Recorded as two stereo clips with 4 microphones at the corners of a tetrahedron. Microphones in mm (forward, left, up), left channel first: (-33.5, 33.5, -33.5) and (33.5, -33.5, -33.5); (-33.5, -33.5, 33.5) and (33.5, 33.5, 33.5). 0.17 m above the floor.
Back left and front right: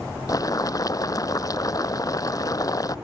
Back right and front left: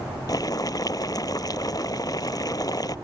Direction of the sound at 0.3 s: Straight behind.